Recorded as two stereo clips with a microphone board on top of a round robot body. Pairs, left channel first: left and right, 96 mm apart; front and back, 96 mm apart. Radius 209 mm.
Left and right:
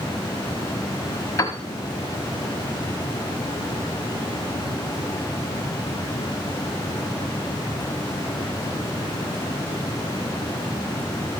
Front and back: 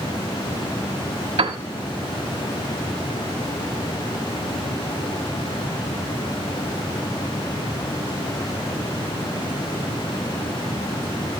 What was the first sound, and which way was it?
A piano, 150° left.